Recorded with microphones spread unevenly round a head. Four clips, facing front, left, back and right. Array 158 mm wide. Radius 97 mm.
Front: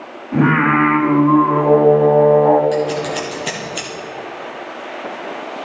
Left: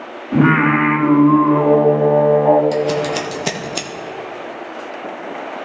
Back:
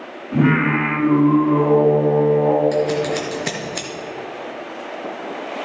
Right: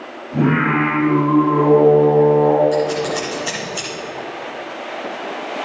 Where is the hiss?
I don't hear a hiss.